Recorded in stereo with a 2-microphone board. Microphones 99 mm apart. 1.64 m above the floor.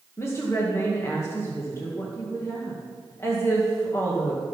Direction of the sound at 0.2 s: 25° left (ahead or behind).